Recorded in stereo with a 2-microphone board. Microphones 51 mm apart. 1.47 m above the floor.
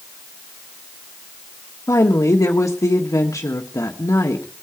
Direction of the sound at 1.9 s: 75° left (ahead or behind).